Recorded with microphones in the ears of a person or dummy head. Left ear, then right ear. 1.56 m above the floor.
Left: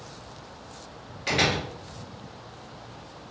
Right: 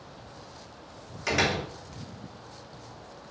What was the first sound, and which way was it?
A door slam, 35° right (ahead or behind).